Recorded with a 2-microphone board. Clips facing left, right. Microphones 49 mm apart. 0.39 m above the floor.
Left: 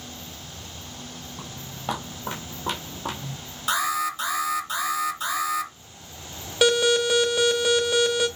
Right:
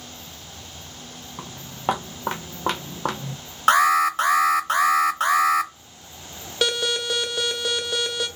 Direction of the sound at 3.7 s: 55° right (ahead or behind).